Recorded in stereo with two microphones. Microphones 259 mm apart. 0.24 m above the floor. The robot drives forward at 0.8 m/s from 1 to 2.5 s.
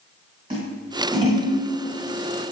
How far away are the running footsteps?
No running footsteps in this recording.